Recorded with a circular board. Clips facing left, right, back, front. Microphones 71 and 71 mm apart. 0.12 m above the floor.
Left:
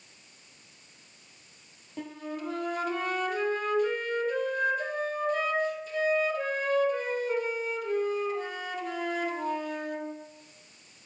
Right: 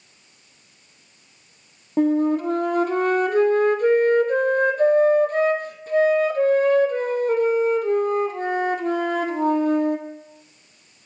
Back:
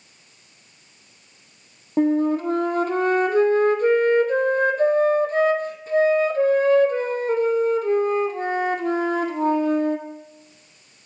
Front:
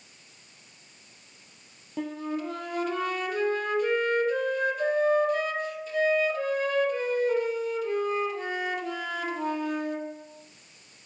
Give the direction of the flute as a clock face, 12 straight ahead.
4 o'clock.